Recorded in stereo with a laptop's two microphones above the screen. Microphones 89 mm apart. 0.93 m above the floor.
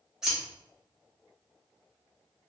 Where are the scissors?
10° right (ahead or behind), 1.8 m.